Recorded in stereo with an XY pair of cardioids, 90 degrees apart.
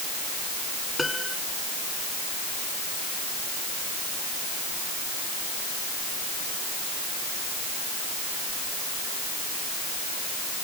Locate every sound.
1.0 s a piano: 20° left